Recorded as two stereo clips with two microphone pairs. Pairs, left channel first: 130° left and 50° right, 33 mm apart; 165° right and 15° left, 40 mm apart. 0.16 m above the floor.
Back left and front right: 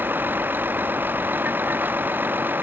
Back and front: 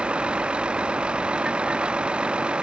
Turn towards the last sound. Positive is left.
turn(degrees=-50)